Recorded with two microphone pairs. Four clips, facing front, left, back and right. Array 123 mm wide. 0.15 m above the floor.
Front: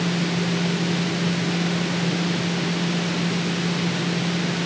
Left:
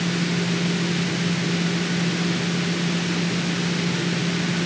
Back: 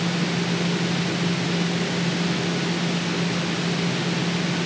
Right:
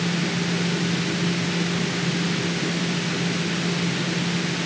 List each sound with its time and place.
Only background noise.